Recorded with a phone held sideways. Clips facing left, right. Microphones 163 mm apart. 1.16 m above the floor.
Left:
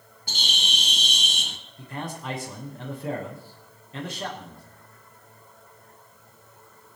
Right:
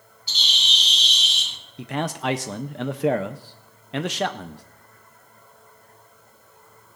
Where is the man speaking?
85° right, 0.8 m.